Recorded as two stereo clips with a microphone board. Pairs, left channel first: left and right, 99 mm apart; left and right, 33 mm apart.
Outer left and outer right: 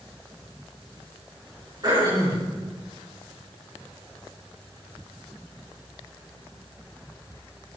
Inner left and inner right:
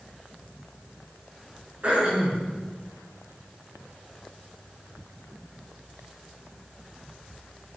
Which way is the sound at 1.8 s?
40° right (ahead or behind).